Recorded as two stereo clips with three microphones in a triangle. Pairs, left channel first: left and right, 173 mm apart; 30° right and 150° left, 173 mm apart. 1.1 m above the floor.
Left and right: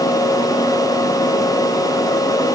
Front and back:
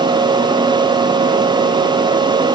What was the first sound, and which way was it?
Only background noise.